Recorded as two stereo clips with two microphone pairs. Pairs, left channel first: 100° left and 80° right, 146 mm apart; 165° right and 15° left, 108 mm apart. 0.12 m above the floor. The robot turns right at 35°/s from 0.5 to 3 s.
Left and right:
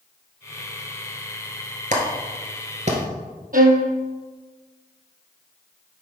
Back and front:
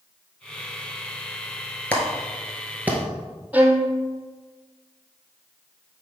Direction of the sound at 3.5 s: 60° right.